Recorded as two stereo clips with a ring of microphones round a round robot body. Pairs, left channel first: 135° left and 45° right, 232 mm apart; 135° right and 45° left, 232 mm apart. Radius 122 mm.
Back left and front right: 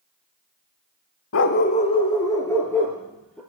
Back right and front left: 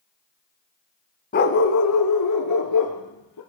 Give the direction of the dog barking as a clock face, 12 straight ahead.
6 o'clock.